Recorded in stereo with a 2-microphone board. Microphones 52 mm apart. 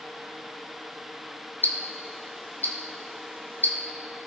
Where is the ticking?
40° left (ahead or behind), 1.7 m.